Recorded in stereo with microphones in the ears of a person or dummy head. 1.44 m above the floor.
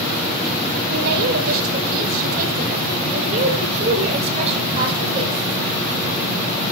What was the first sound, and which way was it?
A woman speaking, 65° right (ahead or behind).